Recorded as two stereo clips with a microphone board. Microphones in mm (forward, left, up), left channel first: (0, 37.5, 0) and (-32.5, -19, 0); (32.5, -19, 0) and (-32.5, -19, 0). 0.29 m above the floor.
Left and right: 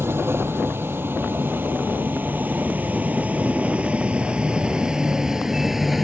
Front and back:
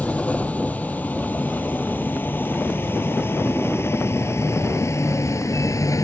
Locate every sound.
0.0 s a vehicle: 70° right; by 6.0 s 35° right